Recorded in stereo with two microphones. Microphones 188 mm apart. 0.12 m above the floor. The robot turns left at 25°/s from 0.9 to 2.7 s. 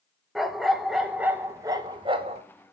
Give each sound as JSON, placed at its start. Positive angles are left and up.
{"t": 0.3, "sound": "a dog barking", "azimuth_deg": 0, "distance_m": 0.6}